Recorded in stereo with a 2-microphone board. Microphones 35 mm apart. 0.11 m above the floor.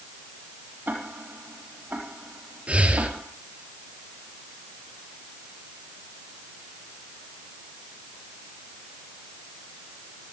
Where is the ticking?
60° right (ahead or behind), 3.5 m.